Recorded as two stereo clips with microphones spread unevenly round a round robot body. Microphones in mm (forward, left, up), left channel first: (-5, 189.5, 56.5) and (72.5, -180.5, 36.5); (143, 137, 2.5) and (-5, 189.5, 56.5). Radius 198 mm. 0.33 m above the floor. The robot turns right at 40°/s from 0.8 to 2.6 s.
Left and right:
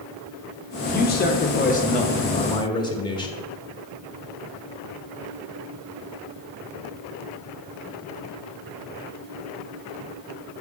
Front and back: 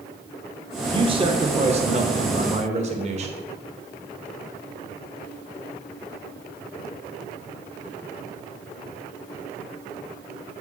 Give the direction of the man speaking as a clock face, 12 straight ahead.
9 o'clock.